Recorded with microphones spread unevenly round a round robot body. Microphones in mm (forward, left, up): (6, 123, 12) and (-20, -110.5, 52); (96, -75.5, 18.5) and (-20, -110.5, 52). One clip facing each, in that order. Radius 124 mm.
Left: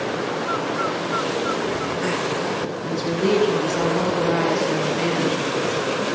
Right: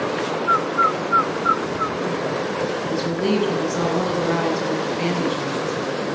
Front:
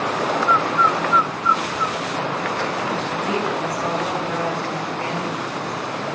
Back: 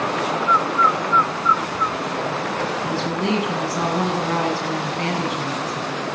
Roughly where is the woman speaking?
Behind.